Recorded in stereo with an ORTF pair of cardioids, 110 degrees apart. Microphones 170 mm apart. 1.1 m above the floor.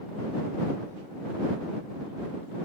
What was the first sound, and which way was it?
Only background noise.